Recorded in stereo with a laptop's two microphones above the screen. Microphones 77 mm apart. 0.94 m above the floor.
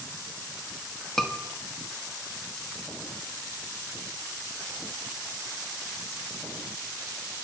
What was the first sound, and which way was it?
A scream, 5° left (ahead or behind).